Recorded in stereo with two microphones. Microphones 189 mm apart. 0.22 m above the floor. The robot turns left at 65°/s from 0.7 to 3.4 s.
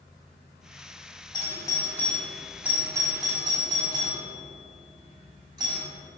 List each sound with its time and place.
1.3 s a doorbell: 25° left (ahead or behind), 1.5 m; by 5.8 s 25° right (ahead or behind), 1.5 m